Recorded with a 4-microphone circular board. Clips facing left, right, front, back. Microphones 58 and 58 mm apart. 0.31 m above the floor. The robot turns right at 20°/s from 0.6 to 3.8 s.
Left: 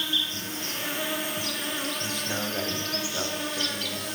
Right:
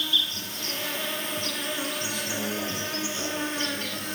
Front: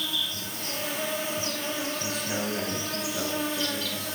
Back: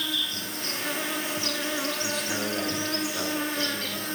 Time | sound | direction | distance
0.0 | an insect | 155° left | 1.2 m
2.0 | a man speaking | 90° left | 1.2 m